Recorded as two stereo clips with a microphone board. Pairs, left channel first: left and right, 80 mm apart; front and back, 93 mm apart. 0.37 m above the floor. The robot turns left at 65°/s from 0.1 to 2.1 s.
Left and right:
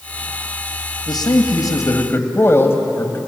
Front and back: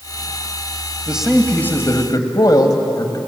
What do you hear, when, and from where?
1.1 s a man speaking: 105° left, 2.5 m; by 3.2 s 35° left, 2.5 m